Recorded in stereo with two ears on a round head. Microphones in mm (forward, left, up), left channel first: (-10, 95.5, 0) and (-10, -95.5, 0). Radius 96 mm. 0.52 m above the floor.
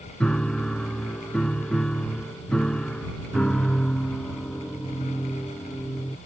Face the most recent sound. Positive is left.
turn(degrees=5)  # may be behind; listen again after turning